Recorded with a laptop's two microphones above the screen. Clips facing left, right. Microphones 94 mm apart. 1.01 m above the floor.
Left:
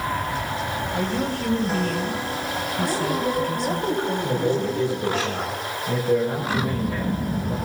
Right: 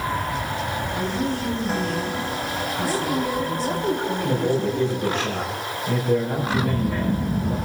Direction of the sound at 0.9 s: 70° left (ahead or behind).